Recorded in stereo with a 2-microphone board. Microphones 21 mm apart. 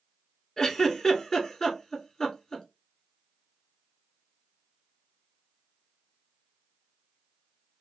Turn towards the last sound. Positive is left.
turn(degrees=25)  # may be behind; listen again after turning